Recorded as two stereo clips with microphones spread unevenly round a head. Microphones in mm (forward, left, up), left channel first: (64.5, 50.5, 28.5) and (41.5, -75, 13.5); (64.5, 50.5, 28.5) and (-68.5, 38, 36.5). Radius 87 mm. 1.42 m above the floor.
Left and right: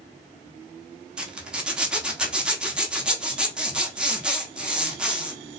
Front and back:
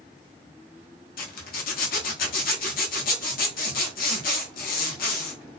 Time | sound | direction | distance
1.2 | a zipper | 20° right | 1.0 m